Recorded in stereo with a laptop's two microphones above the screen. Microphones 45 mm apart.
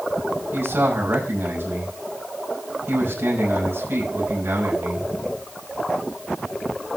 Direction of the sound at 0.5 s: 55° right (ahead or behind).